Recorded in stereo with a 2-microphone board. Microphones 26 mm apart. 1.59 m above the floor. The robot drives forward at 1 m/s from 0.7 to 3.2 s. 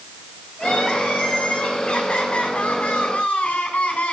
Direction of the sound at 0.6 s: 45° left (ahead or behind).